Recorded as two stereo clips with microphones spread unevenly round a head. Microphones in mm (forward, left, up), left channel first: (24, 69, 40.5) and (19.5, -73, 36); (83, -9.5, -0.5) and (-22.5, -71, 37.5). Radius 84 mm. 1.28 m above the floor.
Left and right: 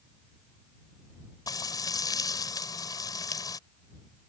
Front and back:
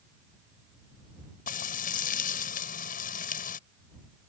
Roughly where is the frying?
Ahead left.